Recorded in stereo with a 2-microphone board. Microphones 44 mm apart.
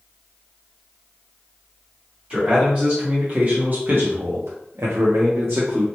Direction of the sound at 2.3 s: 20° right (ahead or behind).